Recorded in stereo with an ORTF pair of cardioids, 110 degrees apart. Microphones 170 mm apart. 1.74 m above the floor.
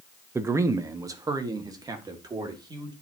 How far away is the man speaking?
About 0.8 m.